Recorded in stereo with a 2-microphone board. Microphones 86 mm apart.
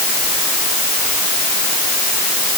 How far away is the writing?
I don't hear writing.